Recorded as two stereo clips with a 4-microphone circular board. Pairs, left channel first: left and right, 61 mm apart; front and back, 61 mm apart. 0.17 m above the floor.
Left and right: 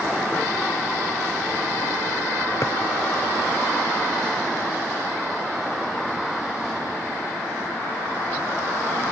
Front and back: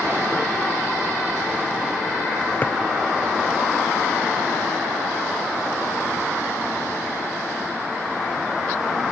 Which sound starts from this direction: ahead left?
A drawer, at 2.6 s.